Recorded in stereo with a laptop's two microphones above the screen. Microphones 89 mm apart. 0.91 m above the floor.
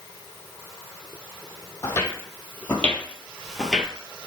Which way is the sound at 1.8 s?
25° left (ahead or behind).